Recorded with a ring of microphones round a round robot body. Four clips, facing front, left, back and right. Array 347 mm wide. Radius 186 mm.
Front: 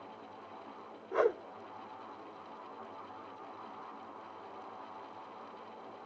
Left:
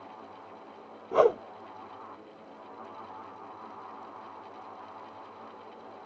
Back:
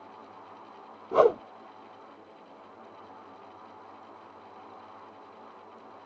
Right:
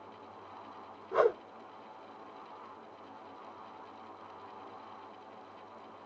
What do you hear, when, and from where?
1.1 s a whoosh: 155° left